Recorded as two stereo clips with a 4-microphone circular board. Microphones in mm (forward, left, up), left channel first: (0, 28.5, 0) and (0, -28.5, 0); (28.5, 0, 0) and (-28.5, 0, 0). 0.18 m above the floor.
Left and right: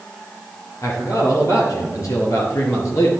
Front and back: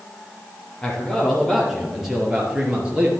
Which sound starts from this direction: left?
A man speaking, at 0.8 s.